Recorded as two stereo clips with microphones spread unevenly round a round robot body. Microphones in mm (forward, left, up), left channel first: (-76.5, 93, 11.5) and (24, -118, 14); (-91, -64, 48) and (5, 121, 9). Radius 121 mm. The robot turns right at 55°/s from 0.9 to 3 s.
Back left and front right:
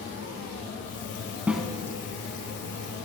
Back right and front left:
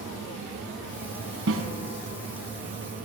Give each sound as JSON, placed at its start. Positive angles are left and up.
{"t": 1.5, "sound": "a snare drum", "azimuth_deg": 20, "distance_m": 1.1}